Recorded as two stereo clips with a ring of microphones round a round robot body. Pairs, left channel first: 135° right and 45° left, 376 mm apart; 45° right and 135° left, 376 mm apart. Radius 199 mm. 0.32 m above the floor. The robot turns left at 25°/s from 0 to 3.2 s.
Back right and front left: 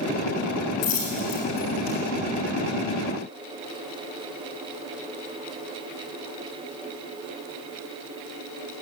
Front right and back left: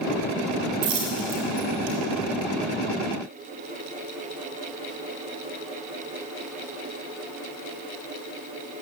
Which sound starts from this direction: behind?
A dropped coin, at 0.8 s.